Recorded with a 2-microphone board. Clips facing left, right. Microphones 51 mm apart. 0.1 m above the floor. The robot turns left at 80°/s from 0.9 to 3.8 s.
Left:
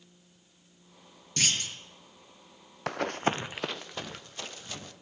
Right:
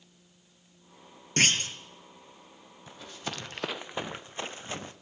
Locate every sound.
1.4 s a clunk: 75° right, 1.7 m; by 1.8 s 110° right, 1.7 m
2.9 s running footsteps: 85° left, 0.7 m; by 4.9 s 30° right (ahead or behind), 1.8 m